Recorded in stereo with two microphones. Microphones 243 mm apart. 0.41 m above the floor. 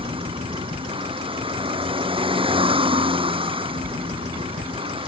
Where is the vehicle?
20° right (ahead or behind).